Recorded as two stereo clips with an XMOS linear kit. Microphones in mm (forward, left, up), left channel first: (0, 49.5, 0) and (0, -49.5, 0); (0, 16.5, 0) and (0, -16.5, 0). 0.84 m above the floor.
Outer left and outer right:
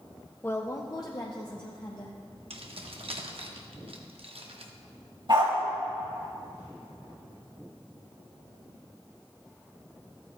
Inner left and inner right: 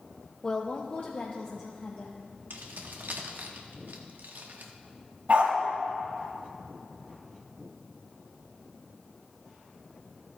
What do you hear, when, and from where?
0.4 s a woman speaking: 20° left (ahead or behind), 0.5 m; by 2.2 s 45° left (ahead or behind), 1.2 m
2.5 s keys jangling: 75° right (ahead or behind), 0.9 m
5.3 s a dog barking: 55° right (ahead or behind), 1.7 m